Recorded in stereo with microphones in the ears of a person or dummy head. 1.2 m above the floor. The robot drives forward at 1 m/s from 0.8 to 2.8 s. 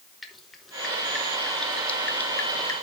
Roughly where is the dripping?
Centre.